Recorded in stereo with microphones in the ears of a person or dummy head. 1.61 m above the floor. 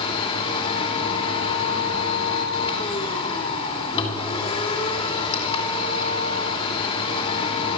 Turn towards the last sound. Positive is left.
turn(degrees=25)  # may be behind; listen again after turning